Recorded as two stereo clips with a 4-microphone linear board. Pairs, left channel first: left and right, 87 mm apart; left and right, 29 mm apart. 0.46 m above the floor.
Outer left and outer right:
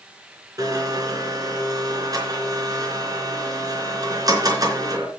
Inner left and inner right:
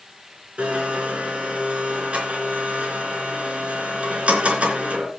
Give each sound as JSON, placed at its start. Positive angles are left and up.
{"t": 0.6, "sound": "a blender", "side_deg": -45, "distance_m": 3.5}